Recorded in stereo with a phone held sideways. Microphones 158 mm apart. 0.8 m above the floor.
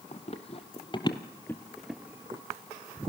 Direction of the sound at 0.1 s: 45° left (ahead or behind).